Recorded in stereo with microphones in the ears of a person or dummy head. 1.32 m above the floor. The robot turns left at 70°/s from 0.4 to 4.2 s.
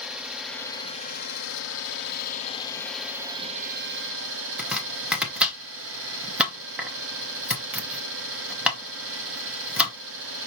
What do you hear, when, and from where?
0.0 s an engine running: straight behind, 1.0 m; by 10.5 s 90° right, 1.0 m
4.6 s chopping: 10° right (ahead or behind), 1.0 m